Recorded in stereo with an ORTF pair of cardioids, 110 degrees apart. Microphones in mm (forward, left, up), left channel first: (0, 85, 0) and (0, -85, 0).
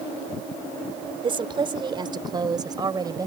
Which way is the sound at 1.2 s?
30° right.